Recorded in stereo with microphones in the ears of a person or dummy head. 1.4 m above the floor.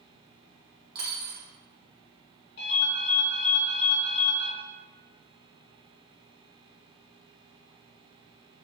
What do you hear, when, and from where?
0.9 s a dropped coin: 25° right (ahead or behind), 1.4 m
2.6 s a ringtone: 55° left (ahead or behind), 1.4 m